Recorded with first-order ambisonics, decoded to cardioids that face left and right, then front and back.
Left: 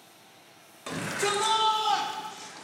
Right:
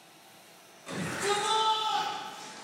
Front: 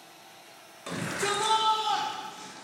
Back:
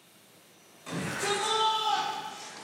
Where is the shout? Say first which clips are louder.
Left 2 dB, front 1 dB; 60° left, 2 m; by 2.6 s 150° left, 1.0 m.